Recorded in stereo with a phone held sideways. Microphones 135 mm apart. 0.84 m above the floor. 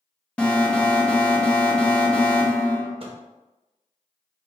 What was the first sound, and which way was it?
An alarm, 10° left (ahead or behind).